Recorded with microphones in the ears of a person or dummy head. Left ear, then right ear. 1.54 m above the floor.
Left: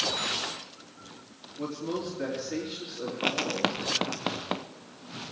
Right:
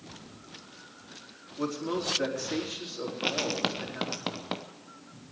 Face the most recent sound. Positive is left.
turn(degrees=10)  # may be behind; listen again after turning